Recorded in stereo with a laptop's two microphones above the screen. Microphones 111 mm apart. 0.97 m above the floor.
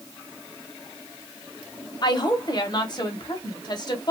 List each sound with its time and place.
2.0 s a woman speaking: 40° left (ahead or behind), 0.9 m